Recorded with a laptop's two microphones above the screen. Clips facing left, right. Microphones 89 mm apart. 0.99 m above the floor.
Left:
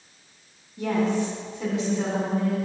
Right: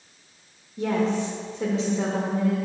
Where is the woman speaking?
35° right (ahead or behind), 0.9 m.